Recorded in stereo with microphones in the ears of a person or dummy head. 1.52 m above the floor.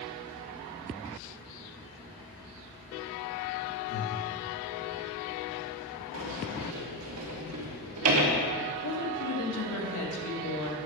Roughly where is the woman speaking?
Left.